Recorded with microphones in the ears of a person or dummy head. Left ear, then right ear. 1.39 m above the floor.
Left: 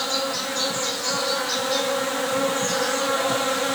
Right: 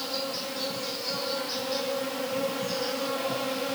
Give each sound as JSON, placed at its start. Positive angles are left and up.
{"t": 0.0, "sound": "an insect", "side_deg": 50, "distance_m": 0.8}